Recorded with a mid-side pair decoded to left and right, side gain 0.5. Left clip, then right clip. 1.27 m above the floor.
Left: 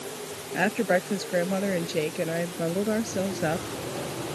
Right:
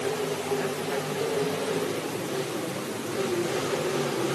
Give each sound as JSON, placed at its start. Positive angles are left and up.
{"t": 0.5, "sound": "a woman speaking", "azimuth_deg": 65}